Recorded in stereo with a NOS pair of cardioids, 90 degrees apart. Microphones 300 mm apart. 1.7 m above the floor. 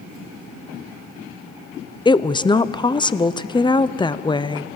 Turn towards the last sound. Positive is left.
turn(degrees=15)